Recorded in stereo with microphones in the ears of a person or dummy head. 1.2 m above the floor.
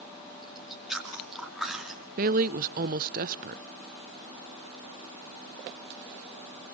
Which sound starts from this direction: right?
A woman speaking, at 2.2 s.